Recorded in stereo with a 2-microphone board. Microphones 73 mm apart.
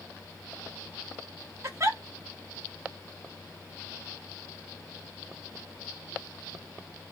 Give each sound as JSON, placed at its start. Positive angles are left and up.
{"t": 1.6, "sound": "a giggle", "side_deg": -45, "distance_m": 1.1}